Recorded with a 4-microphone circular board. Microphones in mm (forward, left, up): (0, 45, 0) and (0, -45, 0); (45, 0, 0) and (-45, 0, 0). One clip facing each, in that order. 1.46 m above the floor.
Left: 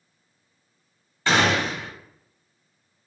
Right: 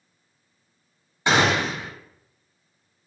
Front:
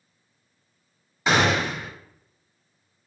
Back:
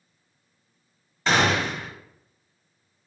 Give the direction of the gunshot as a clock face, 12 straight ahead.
2 o'clock.